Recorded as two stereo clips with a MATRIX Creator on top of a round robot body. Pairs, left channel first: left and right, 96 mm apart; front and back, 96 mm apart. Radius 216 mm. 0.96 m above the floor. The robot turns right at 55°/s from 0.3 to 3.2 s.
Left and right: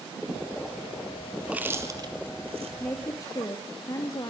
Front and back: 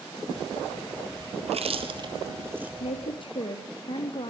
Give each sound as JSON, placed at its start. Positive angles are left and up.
{"t": 1.4, "sound": "chewing", "azimuth_deg": -175, "distance_m": 3.0}
{"t": 2.8, "sound": "a woman speaking", "azimuth_deg": 15, "distance_m": 3.0}